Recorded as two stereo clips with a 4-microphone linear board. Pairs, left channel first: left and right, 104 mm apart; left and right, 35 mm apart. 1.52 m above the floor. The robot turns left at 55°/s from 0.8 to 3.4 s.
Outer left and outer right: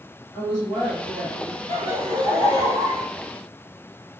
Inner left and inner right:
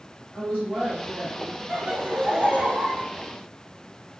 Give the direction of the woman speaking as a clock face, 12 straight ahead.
1 o'clock.